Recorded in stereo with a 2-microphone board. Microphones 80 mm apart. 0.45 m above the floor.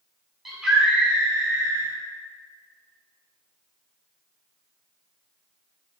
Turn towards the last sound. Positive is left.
turn(degrees=-30)  # may be behind; listen again after turning